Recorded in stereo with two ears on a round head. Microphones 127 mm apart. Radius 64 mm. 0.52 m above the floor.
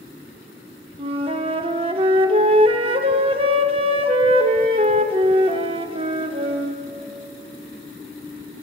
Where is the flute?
40° right (ahead or behind), 0.7 m.